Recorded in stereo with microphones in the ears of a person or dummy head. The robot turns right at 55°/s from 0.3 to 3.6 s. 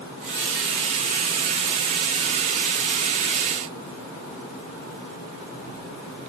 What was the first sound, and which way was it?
Only background noise.